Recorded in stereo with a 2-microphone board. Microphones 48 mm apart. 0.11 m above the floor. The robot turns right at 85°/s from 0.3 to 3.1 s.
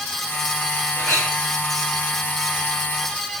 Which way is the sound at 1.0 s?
55° left.